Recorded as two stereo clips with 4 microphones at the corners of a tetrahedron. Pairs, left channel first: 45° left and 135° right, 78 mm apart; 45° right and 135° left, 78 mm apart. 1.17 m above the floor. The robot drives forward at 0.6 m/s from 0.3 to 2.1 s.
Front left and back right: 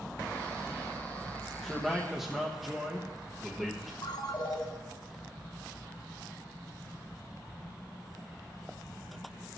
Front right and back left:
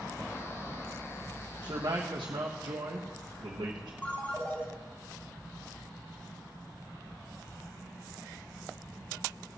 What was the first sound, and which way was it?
A man speaking, 125° left.